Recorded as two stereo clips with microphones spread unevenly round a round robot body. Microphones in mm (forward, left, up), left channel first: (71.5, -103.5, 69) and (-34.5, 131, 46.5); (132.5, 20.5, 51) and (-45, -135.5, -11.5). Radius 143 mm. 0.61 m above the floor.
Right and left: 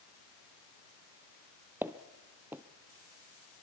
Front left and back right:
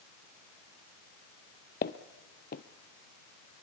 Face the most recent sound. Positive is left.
turn(degrees=30)